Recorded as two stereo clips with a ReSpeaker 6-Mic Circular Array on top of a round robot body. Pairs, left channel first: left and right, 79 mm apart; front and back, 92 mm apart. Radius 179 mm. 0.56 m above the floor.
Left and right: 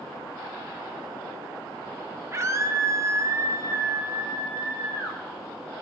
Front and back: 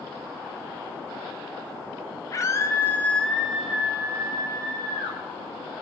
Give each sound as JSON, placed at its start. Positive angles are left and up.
{"t": 2.3, "sound": "a scream", "azimuth_deg": -45, "distance_m": 1.8}